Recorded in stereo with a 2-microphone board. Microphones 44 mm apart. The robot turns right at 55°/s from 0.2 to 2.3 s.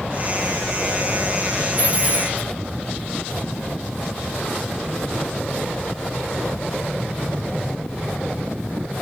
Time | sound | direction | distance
1.8 | a dropped coin | 45° right (ahead or behind) | 5 m